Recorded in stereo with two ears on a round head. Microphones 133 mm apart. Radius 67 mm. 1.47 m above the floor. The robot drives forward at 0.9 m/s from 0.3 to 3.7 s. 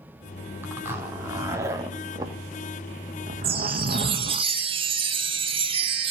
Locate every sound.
0.6 s a zipper: 15° right (ahead or behind), 3 m; by 4.4 s 55° right (ahead or behind), 0.9 m
3.4 s a chime: 40° right (ahead or behind), 1.5 m; by 6.1 s 35° right (ahead or behind), 1.7 m